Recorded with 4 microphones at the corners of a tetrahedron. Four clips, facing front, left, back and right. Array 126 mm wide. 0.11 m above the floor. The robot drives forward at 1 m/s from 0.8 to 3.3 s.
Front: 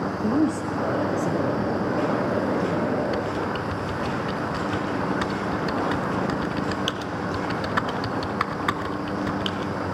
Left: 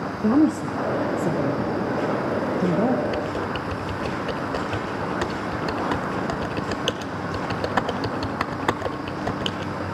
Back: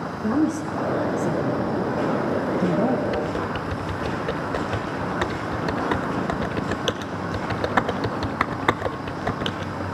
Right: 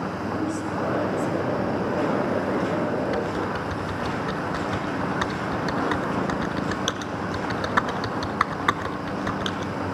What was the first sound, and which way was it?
A woman speaking, 85° left.